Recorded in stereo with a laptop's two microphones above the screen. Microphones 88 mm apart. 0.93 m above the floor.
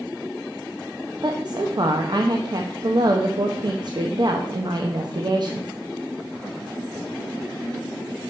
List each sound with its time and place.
1.2 s a woman speaking: 55° right (ahead or behind), 0.7 m